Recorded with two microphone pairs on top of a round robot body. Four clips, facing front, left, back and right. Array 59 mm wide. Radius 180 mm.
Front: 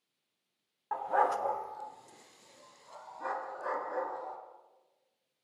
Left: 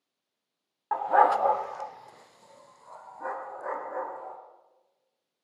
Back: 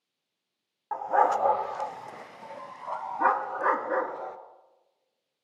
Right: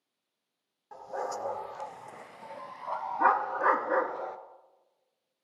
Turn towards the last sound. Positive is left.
turn(degrees=-120)